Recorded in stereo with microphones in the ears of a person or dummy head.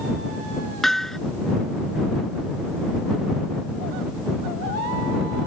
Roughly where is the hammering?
Centre.